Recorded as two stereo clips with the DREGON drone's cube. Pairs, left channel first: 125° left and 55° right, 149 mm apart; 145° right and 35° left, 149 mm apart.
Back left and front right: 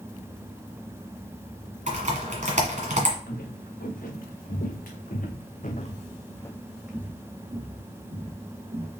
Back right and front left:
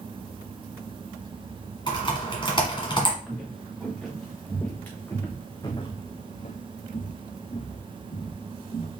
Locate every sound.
1.9 s typing on a keyboard: 90° right, 1.5 m
3.3 s footsteps: 120° left, 2.5 m; by 8.9 s 95° right, 2 m